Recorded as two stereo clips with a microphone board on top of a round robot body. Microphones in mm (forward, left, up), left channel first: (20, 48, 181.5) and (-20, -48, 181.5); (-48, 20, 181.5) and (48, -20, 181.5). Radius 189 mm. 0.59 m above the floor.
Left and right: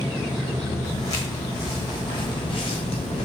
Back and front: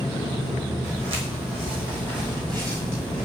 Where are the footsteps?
10° left, 2.5 m; by 3.2 s 60° left, 0.9 m.